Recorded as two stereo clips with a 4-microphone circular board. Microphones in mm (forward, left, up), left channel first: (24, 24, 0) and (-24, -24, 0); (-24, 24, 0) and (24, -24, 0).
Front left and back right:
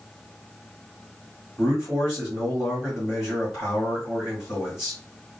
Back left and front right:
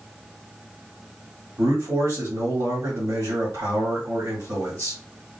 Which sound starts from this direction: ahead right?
A man speaking, at 1.6 s.